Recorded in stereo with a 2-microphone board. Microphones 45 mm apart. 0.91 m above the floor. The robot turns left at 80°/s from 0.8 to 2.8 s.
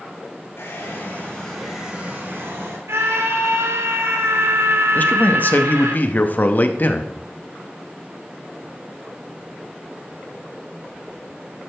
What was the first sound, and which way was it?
A hair dryer, 75° left.